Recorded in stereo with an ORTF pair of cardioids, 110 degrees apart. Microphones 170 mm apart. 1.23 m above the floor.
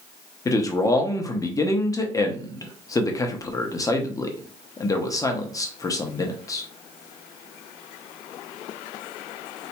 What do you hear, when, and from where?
0.5 s a man speaking: 20° left, 0.7 m